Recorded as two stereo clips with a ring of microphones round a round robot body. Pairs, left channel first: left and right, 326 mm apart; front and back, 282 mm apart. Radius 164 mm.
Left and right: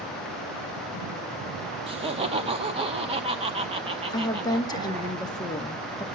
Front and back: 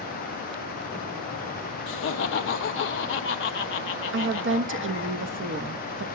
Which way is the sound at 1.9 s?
25° right.